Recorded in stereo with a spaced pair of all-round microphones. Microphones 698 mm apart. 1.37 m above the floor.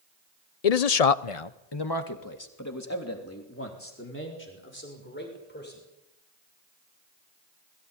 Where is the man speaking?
60° left (ahead or behind), 0.8 m; by 5.8 s 15° left (ahead or behind), 6.5 m.